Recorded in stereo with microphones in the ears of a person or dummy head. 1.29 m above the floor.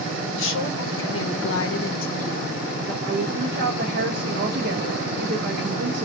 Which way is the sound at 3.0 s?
60° right (ahead or behind).